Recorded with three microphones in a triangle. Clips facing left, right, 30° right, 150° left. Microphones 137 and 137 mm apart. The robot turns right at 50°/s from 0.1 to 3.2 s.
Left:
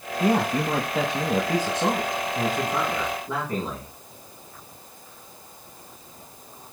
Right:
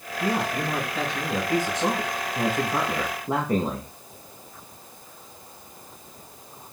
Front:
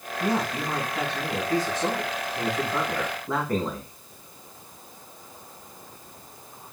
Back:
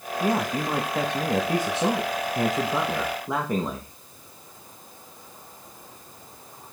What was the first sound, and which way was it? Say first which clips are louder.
A man speaking: left 4 dB, back 2 dB; 75° left.